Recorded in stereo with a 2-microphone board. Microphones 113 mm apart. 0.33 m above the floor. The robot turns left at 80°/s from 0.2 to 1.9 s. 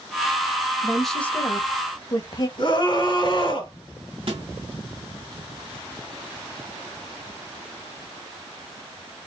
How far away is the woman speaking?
About 1.1 m.